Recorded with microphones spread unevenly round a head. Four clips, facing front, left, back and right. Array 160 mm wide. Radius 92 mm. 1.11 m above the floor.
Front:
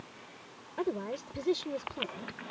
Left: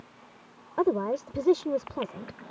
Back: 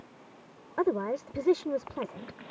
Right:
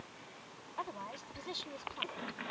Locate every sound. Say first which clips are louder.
0.8 s a woman speaking: left 17 dB, back 6 dB; 115° left